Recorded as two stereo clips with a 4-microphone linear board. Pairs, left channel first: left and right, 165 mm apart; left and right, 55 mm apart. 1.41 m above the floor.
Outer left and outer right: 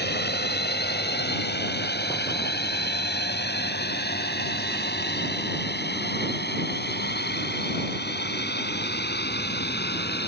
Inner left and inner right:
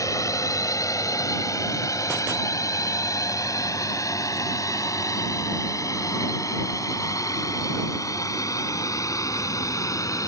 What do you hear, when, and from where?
0.0 s a drone: 85° left; by 10.3 s 80° left